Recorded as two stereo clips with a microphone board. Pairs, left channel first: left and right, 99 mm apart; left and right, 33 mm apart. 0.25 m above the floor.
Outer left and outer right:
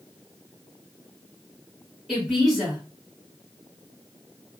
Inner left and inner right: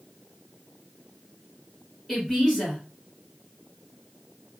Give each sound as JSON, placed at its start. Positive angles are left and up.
{"t": 2.1, "sound": "a woman speaking", "side_deg": 0, "distance_m": 1.9}